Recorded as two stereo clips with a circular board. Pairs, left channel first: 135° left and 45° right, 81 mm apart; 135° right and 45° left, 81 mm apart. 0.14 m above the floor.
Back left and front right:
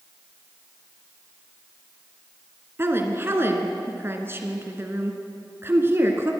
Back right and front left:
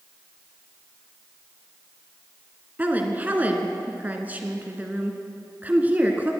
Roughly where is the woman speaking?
Ahead.